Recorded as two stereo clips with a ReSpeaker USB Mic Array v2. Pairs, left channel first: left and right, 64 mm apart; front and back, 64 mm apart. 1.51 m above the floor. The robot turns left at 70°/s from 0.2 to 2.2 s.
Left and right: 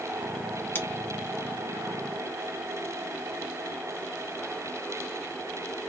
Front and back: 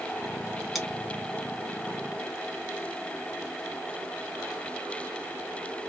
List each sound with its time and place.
0.8 s scissors: 95° left, 1.4 m; by 0.9 s 85° left, 1.4 m